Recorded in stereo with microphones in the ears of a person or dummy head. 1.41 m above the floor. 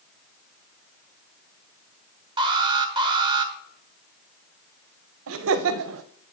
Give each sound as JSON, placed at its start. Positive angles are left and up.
{"t": 2.4, "sound": "an alarm", "side_deg": -25, "distance_m": 1.1}
{"t": 5.3, "sound": "laughter", "side_deg": -70, "distance_m": 0.6}